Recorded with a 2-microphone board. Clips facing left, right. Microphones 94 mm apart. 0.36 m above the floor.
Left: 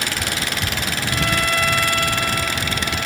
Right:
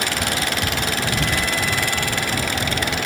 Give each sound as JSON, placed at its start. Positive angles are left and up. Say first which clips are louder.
{"t": 1.1, "sound": "a violin", "louder": "left 1 dB", "side_deg": 65}